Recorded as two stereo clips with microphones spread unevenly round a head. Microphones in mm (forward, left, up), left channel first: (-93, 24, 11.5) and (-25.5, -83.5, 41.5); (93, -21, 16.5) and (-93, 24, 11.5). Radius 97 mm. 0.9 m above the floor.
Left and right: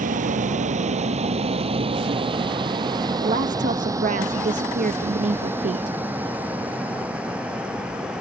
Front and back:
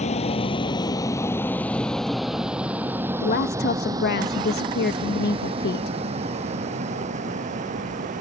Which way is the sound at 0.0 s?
70° right.